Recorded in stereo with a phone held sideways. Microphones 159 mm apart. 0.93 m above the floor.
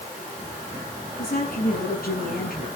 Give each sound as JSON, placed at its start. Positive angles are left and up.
{"t": 1.2, "sound": "a woman speaking", "side_deg": 65, "distance_m": 8.0}